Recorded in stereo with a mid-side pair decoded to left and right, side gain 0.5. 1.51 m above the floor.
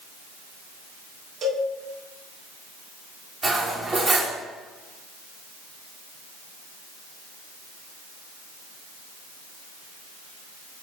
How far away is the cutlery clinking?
About 1.8 m.